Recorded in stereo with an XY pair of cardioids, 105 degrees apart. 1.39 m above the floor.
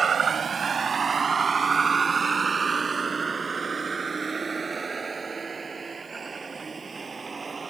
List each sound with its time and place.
0.0 s a vehicle: 45° right; by 7.7 s 30° right